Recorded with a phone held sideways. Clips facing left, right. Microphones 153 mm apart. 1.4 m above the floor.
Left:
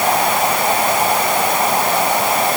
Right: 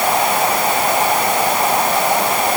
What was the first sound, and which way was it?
Only background noise.